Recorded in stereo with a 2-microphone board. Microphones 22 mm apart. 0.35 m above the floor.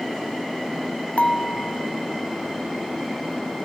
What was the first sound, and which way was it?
Dishes clattering, 65° left (ahead or behind).